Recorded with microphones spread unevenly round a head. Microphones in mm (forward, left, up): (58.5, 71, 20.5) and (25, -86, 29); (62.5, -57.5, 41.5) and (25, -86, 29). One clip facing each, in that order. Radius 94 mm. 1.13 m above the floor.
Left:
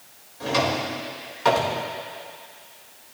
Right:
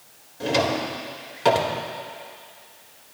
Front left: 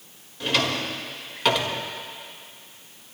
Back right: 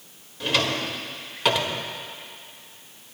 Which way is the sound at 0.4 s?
50° right.